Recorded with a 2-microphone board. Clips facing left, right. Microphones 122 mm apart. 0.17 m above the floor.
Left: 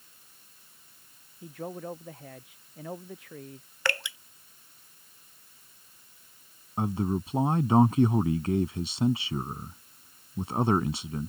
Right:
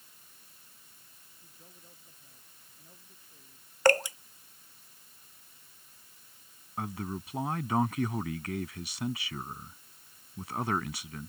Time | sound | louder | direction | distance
1.4 | a man speaking | left 24 dB | 85° left | ?
3.9 | dripping | right 9 dB | 40° right (ahead or behind) | ?
6.8 | a man speaking | left 8 dB | 30° left (ahead or behind) | ?